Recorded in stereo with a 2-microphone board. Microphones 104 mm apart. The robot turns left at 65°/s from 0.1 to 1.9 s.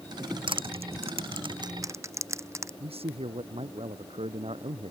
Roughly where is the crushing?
Right.